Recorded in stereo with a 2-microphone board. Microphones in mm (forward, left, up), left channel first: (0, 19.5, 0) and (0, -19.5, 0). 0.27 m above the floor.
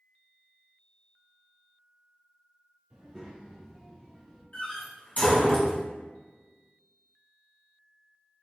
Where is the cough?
No cough in this recording.